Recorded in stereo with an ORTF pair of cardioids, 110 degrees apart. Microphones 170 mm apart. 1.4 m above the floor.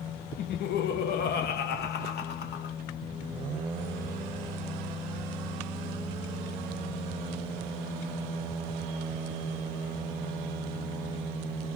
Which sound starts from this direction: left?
Laughter, at 0.4 s.